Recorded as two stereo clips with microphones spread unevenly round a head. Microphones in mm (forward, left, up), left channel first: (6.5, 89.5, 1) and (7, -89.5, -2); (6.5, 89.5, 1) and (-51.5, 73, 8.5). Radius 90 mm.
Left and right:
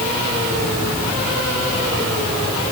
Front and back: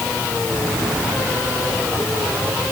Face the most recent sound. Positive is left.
No sound to turn to.